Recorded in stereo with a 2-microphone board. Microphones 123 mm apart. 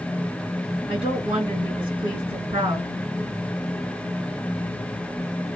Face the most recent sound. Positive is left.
turn(degrees=-40)  # may be behind; listen again after turning